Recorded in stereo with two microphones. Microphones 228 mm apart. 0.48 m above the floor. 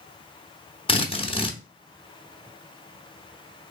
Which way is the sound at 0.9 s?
25° left (ahead or behind).